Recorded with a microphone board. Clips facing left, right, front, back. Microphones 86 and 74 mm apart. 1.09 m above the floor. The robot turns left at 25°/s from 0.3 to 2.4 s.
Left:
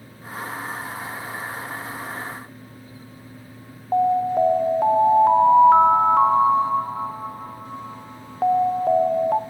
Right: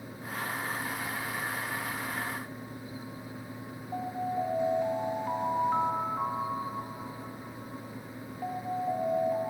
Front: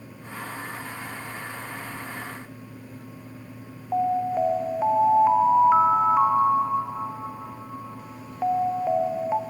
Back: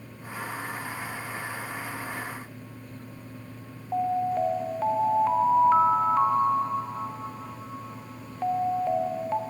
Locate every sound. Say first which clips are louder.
3.9 s an alarm: left 14 dB, front 2 dB; 75° left, 1.0 m